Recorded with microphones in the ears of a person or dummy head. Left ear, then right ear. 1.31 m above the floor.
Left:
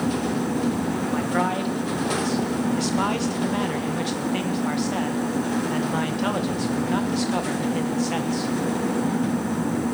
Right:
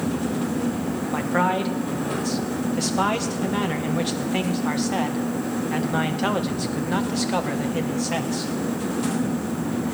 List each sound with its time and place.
1.1 s a man speaking: 5° left (ahead or behind), 1.1 m